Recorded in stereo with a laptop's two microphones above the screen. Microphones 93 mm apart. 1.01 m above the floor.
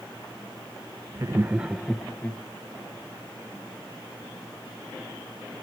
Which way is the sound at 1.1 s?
30° right (ahead or behind).